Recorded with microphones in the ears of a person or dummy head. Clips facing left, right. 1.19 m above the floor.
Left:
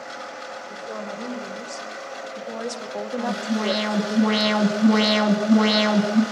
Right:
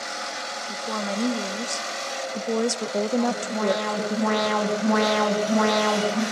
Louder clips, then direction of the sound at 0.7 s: Right 5 dB; 70° right (ahead or behind).